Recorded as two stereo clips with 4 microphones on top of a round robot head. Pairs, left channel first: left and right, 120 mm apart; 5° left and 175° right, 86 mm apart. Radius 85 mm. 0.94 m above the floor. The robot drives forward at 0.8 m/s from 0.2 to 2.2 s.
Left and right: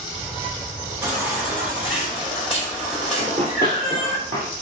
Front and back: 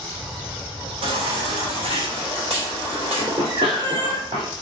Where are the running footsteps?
140° right, 3.5 m; by 4.5 s 155° right, 2.5 m.